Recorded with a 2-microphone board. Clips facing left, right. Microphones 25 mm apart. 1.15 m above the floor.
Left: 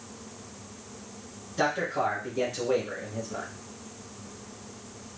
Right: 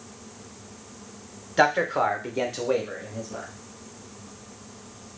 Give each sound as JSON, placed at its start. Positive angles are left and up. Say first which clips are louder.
{"t": 1.6, "sound": "a man speaking", "louder": "right 6 dB", "side_deg": -80, "distance_m": 0.7}